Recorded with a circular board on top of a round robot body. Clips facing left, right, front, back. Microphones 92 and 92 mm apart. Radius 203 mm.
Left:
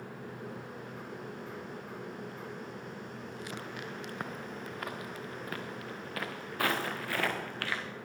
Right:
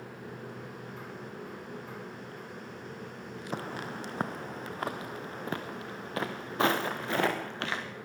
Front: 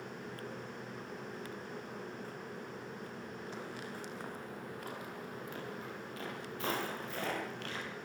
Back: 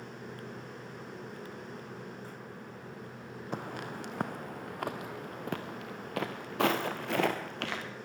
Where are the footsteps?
140° right, 1.4 m; by 7.9 s 160° right, 4 m.